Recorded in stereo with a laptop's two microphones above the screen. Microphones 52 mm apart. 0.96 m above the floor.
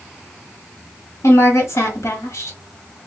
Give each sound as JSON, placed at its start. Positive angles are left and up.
{"t": 1.2, "sound": "a woman speaking", "side_deg": 70, "distance_m": 1.3}